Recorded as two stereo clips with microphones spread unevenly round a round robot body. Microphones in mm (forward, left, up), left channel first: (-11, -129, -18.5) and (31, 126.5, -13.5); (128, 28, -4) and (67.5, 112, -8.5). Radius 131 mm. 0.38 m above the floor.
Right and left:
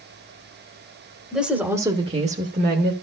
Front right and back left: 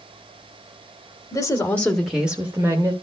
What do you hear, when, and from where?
1.3 s a woman speaking: 10° right, 1.3 m; by 2.9 s 110° left, 1.3 m